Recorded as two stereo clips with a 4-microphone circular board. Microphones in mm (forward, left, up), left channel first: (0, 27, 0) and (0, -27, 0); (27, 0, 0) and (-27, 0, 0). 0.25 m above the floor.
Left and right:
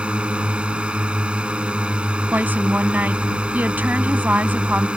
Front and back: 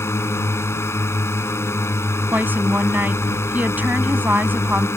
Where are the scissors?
I don't hear scissors.